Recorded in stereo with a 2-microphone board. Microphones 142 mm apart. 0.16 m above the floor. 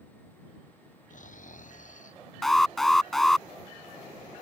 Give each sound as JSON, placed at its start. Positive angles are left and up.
{"t": 1.1, "sound": "snoring", "side_deg": 65}
{"t": 2.4, "sound": "an alarm", "side_deg": 0}